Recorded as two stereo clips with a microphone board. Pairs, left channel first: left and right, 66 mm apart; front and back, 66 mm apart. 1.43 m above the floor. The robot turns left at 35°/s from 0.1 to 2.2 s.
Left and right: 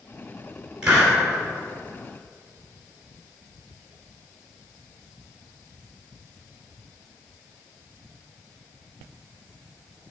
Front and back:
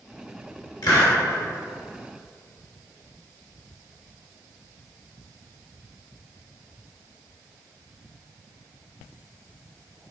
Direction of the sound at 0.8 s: 10° right.